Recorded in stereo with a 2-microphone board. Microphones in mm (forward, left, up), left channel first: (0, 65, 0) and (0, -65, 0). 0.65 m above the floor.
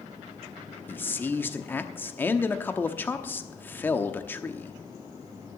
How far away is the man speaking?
About 0.9 m.